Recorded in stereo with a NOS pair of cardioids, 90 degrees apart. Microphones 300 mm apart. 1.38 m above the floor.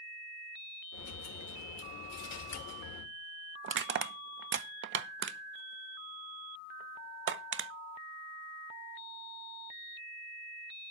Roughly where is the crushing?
Ahead right.